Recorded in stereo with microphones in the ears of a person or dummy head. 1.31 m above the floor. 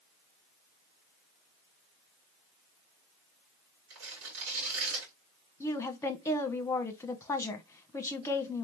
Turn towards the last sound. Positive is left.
turn(degrees=20)  # may be behind; listen again after turning